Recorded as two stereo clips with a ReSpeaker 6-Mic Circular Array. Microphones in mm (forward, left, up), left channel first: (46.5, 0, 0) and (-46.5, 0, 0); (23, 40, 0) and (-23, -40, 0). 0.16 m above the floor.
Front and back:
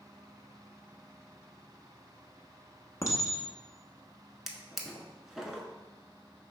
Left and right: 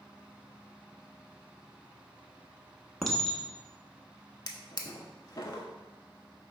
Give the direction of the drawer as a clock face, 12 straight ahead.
9 o'clock.